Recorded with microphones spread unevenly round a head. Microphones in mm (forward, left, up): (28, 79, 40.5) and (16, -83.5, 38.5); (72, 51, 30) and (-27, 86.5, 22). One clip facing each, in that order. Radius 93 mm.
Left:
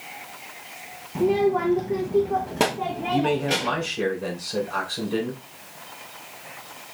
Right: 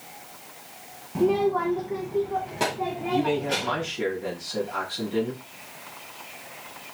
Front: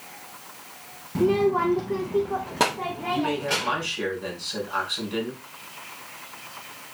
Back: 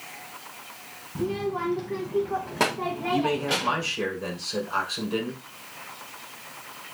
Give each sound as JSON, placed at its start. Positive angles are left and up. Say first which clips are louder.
{"t": 1.1, "sound": "a child speaking", "louder": "left 2 dB, front 7 dB", "azimuth_deg": -10, "distance_m": 0.5}
{"t": 3.1, "sound": "a man speaking", "louder": "left 2 dB, back 1 dB", "azimuth_deg": 110, "distance_m": 3.5}